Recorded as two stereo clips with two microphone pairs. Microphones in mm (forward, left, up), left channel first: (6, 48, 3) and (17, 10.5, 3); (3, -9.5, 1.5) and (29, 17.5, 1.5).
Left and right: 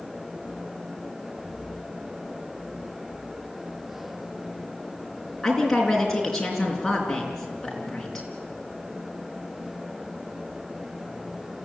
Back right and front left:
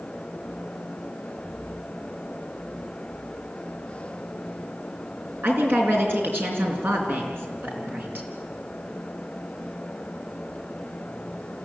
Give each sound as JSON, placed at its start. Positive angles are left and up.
{"t": 5.4, "sound": "a woman speaking", "azimuth_deg": 30, "distance_m": 4.5}